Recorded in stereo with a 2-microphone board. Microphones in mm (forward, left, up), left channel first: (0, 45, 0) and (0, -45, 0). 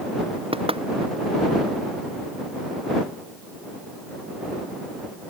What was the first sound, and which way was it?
Knocking, 85° right.